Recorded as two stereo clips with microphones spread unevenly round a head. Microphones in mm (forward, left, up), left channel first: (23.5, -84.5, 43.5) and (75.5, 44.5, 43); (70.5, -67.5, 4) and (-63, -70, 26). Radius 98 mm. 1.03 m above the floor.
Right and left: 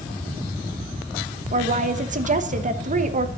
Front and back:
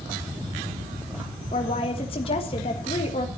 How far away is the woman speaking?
About 1.3 m.